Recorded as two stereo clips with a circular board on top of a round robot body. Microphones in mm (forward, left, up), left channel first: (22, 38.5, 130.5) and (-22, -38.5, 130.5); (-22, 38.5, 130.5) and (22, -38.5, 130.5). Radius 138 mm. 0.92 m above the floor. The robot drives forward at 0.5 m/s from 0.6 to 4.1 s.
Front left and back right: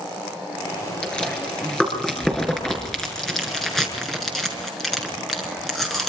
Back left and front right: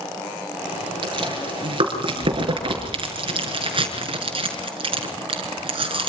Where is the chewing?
20° right, 7 m; by 6.1 s 30° right, 5.5 m.